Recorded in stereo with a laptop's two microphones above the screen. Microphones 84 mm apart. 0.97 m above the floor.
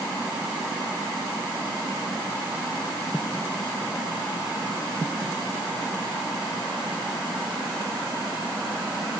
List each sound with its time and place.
Only background noise.